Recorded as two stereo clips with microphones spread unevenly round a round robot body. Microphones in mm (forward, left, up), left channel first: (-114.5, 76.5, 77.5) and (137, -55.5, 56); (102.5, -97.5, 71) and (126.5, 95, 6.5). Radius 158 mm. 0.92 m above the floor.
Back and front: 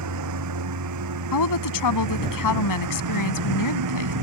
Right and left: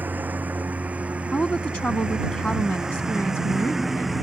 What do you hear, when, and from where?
0.0 s a lawn mower: straight ahead; by 4.2 s 10° right
1.3 s a woman speaking: 175° left